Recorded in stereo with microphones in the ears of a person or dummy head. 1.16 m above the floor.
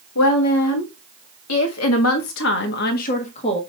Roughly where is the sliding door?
I don't hear a sliding door.